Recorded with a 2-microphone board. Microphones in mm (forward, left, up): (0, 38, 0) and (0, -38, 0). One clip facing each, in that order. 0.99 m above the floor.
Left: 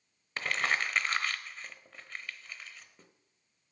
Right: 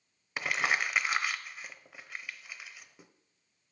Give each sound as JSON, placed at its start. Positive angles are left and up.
{"t": 0.4, "sound": "crumpling", "side_deg": -10, "distance_m": 0.8}